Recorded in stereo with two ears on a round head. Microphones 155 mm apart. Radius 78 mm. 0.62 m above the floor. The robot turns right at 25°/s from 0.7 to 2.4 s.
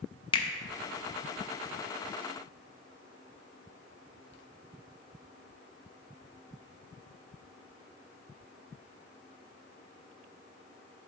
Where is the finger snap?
30° left (ahead or behind), 0.6 m.